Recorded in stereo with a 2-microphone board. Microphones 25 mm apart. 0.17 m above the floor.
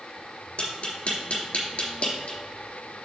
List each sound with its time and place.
0.6 s tapping: 50° left (ahead or behind), 3.5 m